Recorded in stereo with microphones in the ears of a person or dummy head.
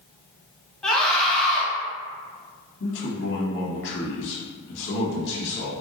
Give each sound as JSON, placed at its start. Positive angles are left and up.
{"t": 0.8, "sound": "a scream", "side_deg": 5, "distance_m": 1.4}
{"t": 2.8, "sound": "a man speaking", "side_deg": 65, "distance_m": 1.4}